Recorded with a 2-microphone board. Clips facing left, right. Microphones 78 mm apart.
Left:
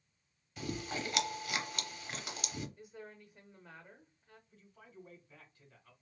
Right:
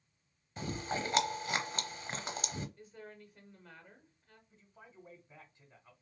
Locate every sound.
0.6 s chewing: 35° right (ahead or behind), 0.7 m
2.8 s a woman speaking: 5° left (ahead or behind), 1.0 m
4.5 s a man speaking: 20° right (ahead or behind), 1.0 m